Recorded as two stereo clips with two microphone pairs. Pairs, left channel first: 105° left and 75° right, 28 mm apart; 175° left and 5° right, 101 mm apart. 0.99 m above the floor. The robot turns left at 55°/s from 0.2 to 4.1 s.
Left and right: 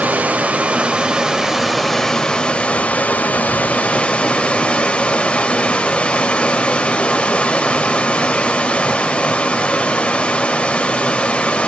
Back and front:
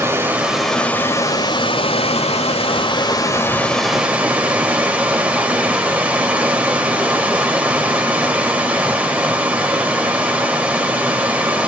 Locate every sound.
0.0 s running water: 75° right, 2.5 m; by 11.7 s 70° left, 2.5 m